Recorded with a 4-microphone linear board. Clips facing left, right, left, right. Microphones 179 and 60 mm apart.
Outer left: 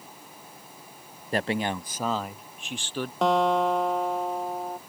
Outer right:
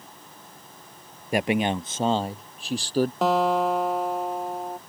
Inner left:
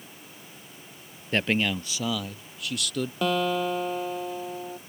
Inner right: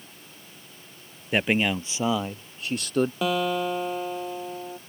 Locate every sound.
1.3 s a man speaking: 10° right (ahead or behind); by 3.1 s 40° right (ahead or behind)
3.2 s a guitar: 5° right (ahead or behind)